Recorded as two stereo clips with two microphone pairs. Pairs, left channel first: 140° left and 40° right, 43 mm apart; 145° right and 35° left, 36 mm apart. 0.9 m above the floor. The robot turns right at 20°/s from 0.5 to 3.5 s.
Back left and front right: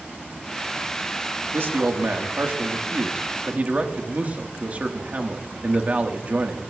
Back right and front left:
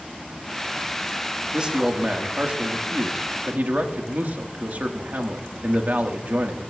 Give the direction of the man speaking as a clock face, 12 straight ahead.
1 o'clock.